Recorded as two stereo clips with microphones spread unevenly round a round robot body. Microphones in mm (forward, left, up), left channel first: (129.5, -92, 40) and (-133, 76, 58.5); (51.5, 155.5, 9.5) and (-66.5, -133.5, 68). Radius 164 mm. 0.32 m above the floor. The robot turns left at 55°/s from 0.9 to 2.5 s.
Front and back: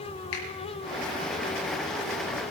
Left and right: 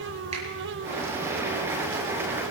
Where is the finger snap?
40° right, 5.5 m.